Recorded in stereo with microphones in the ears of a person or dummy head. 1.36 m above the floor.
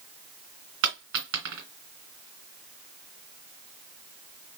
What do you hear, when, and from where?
0.8 s a dropped coin: 55° right (ahead or behind), 2 m